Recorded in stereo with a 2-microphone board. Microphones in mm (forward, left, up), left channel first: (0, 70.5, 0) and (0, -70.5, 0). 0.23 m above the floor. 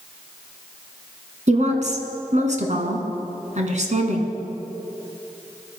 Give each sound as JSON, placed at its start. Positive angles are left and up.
{"t": 1.5, "sound": "a woman speaking", "side_deg": -60, "distance_m": 2.5}